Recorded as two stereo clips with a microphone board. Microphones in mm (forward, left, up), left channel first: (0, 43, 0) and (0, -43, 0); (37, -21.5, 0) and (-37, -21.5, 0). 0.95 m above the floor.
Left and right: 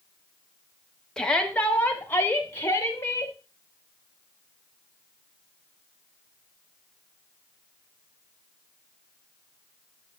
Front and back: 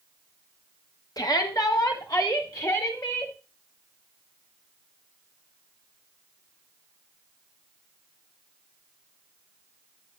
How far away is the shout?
About 1.1 m.